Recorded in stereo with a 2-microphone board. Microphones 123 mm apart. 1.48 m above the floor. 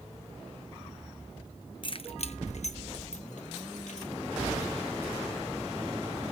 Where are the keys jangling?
40° left (ahead or behind), 0.7 m; by 4.1 s 70° left (ahead or behind), 2 m.